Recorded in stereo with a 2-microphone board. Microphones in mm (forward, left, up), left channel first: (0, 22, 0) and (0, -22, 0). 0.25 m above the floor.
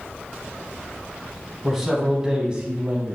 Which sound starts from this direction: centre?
A man speaking, at 1.6 s.